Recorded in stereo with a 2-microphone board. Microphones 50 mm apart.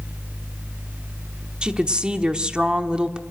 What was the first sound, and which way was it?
A woman speaking, 20° right (ahead or behind).